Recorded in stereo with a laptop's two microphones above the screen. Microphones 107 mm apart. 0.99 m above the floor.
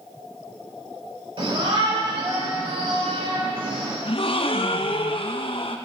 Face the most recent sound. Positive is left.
turn(degrees=55)  # may be behind; listen again after turning